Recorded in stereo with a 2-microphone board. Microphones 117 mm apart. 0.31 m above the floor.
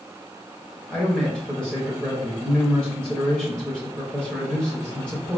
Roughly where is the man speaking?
Centre.